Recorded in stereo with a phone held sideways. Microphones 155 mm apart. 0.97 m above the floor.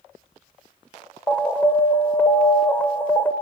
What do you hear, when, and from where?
1.3 s an alarm: 15° left (ahead or behind), 2.5 m